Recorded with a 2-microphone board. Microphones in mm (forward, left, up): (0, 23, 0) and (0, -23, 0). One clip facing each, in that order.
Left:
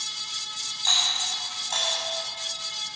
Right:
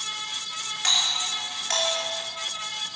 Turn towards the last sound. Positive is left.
turn(degrees=-65)  # may be behind; listen again after turning